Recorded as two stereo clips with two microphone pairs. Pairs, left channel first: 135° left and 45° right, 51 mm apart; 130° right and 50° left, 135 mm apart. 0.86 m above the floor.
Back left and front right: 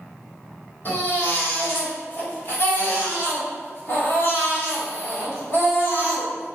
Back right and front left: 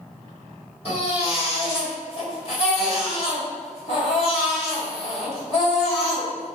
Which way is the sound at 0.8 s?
170° right.